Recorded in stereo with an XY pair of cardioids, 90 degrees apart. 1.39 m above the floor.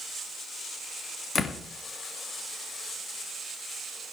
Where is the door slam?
55° left, 1.6 m.